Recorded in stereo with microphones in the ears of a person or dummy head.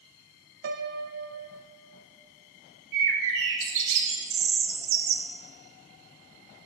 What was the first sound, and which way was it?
A piano, 60° right (ahead or behind).